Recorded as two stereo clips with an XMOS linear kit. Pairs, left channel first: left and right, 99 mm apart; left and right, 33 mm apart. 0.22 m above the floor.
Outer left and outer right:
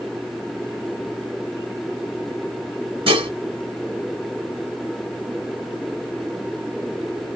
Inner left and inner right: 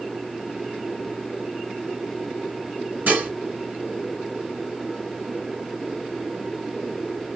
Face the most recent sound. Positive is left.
turn(degrees=-60)  # may be behind; listen again after turning